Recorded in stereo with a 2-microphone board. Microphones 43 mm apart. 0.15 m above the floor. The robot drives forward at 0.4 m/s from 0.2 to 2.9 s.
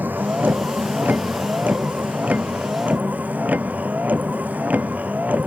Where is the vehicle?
45° right (ahead or behind); by 5.5 s 35° right (ahead or behind).